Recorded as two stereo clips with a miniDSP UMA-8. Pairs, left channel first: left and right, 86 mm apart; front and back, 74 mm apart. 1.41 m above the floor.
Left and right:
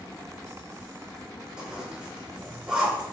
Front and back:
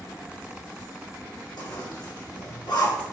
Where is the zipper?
10° right, 5 m.